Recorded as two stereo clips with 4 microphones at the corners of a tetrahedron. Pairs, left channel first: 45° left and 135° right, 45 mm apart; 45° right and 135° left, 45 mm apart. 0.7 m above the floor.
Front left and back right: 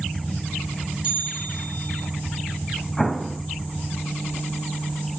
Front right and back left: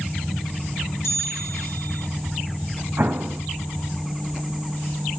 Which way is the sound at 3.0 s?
130° left.